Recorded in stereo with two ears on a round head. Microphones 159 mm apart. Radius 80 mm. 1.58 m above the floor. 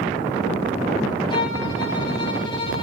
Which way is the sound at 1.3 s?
30° left (ahead or behind).